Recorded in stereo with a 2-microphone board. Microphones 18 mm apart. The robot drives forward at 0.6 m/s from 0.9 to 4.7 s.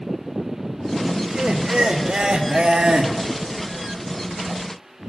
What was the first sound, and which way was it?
Laughter, 70° right (ahead or behind).